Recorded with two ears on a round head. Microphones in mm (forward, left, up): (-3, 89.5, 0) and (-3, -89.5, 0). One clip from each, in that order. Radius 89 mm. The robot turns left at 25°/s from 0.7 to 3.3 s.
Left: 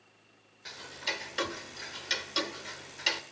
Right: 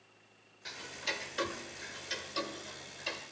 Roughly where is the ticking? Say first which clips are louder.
Left 2 dB; centre.